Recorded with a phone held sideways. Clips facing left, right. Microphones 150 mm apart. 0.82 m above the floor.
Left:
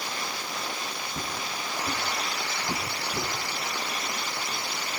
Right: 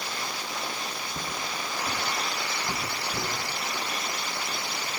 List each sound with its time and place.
1.1 s footsteps: 5° left (ahead or behind), 8 m; by 3.3 s 10° left (ahead or behind), 10.5 m